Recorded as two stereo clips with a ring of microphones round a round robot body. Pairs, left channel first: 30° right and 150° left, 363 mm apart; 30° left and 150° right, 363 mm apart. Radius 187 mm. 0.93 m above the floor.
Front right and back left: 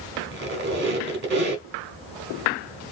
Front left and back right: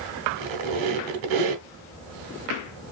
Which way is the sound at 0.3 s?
150° right.